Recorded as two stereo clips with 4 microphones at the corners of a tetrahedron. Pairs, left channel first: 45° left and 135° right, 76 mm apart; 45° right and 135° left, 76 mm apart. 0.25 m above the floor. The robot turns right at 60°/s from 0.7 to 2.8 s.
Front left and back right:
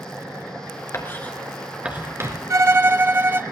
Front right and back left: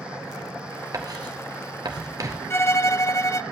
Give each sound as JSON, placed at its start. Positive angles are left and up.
{"t": 0.9, "sound": "writing", "azimuth_deg": 95, "distance_m": 1.9}
{"t": 2.5, "sound": "a violin", "azimuth_deg": -95, "distance_m": 0.5}